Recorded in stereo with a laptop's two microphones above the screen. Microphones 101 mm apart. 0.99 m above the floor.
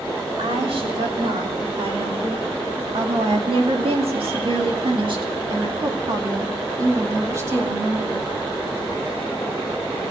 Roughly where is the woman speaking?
Right.